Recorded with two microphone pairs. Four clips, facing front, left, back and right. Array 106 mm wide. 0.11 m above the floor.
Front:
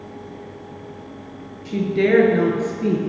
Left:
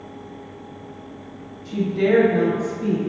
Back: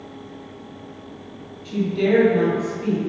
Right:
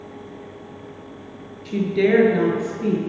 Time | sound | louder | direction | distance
1.6 | a woman speaking | right 1 dB, front 2 dB | 60° right | 1.6 m